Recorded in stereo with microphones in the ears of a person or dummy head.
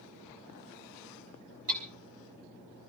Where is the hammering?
40° right (ahead or behind), 2 m.